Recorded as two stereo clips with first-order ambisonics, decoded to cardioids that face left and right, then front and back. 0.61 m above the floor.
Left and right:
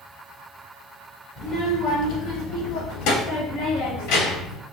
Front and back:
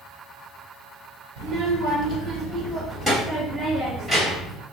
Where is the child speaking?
145° left, 1.2 m; by 4.6 s 95° left, 2.5 m.